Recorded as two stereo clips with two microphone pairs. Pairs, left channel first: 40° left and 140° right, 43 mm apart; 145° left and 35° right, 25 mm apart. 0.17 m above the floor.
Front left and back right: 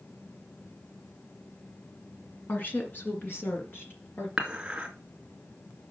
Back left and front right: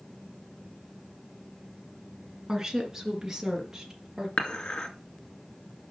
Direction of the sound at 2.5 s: 25° left.